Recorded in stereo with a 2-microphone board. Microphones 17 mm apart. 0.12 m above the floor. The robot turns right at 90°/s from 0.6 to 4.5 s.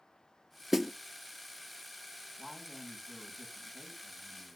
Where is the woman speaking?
20° left, 8 m; by 4.6 s 150° right, 8 m.